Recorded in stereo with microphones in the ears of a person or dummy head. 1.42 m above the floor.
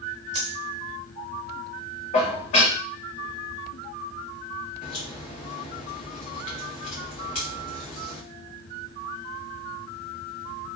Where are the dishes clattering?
45° left (ahead or behind), 1.2 m.